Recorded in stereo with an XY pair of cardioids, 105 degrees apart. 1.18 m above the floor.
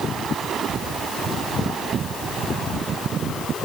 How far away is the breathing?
I don't hear breathing.